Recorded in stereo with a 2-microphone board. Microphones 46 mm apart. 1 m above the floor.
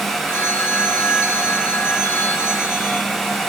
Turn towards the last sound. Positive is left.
turn(degrees=55)  # may be behind; listen again after turning